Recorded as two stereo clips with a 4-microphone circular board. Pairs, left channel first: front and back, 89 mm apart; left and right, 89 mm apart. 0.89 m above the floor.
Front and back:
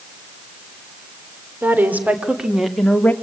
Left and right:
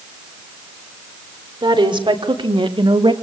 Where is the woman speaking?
115° right, 3.5 m; by 3.1 s 75° right, 2 m.